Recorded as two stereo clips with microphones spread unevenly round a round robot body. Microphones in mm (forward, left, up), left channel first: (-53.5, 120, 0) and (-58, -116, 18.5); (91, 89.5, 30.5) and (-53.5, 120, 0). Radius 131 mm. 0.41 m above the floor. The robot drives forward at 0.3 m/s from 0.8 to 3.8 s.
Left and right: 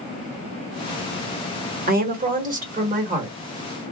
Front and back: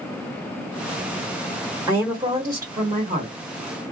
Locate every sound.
1.9 s a woman speaking: 135° right, 1.4 m; by 3.4 s 150° right, 1.7 m